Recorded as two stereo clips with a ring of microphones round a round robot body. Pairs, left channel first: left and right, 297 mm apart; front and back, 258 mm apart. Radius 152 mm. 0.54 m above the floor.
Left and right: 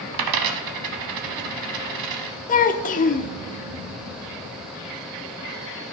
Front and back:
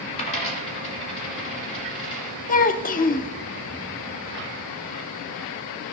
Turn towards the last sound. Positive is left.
turn(degrees=40)